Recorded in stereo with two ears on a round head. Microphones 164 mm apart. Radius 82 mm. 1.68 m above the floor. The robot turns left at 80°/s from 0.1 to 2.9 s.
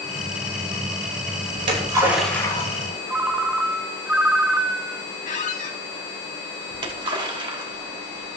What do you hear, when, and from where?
1.5 s a splash: 55° right (ahead or behind), 6 m; by 3.4 s 55° left (ahead or behind), 6 m
3.1 s a ringtone: 10° right (ahead or behind), 1.6 m
5.2 s a squeak: 45° left (ahead or behind), 3 m
6.7 s a splash: 25° right (ahead or behind), 2 m